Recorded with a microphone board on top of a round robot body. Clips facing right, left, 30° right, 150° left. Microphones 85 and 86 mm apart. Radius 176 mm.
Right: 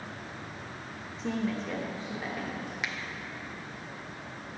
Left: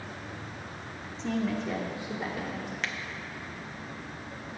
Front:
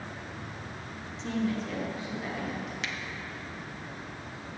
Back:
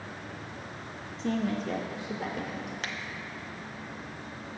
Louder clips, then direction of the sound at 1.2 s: Left 2 dB, back 1 dB; 175° right.